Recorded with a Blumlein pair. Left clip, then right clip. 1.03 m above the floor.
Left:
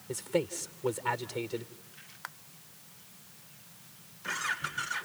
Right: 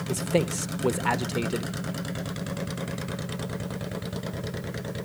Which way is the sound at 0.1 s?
60° right.